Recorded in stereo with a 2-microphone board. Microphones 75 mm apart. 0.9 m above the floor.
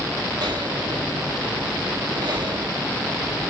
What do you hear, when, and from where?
0.4 s breathing: 70° right (ahead or behind), 1.9 m